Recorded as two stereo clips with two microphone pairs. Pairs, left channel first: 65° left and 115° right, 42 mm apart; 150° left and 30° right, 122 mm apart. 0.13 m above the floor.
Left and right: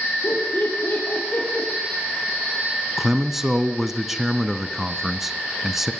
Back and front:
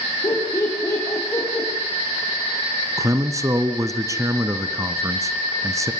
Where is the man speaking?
40° right, 1.3 m.